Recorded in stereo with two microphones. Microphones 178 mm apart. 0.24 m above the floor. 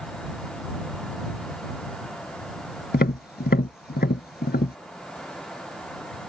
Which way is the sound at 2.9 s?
70° left (ahead or behind).